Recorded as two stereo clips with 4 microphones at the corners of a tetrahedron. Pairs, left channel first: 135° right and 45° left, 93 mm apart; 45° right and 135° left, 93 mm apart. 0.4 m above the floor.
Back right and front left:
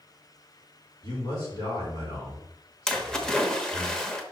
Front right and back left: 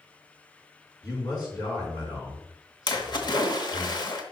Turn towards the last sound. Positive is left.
turn(degrees=-55)